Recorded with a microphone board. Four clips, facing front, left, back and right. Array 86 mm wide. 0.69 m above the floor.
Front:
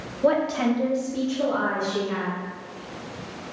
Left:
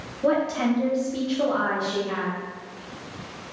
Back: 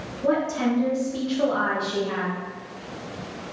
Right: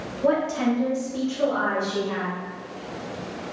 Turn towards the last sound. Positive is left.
turn(degrees=160)